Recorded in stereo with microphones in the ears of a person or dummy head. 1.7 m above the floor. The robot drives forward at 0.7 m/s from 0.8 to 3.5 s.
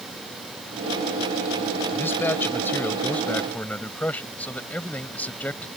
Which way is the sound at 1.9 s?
20° left (ahead or behind).